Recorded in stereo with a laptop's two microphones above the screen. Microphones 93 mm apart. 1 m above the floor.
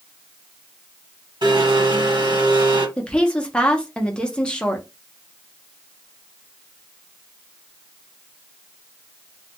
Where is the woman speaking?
10° left (ahead or behind), 0.5 m.